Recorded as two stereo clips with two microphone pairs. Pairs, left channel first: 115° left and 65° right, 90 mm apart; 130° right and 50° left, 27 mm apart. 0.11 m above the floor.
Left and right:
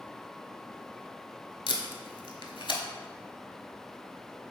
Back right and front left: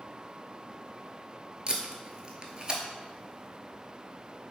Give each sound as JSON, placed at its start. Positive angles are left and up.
{"t": 1.7, "sound": "tape being pulled", "azimuth_deg": 105, "distance_m": 0.5}